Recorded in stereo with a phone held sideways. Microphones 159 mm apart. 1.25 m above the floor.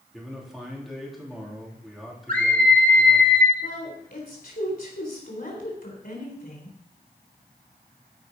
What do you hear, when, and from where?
0.1 s a man speaking: centre (ahead or behind), 3 m
2.3 s a scream: 55° right (ahead or behind), 2 m
3.6 s a woman speaking: 60° left (ahead or behind), 4 m